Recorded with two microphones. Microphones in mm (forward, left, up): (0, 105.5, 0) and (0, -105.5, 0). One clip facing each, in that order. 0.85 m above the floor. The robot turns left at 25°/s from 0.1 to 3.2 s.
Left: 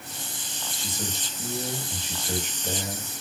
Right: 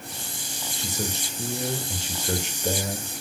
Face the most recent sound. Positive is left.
turn(degrees=-125)